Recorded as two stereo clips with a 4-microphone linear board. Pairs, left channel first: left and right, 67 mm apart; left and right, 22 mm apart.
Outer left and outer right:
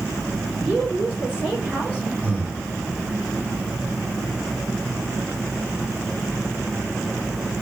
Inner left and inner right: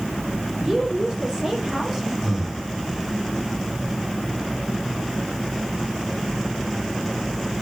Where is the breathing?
20° right (ahead or behind), 3.5 m.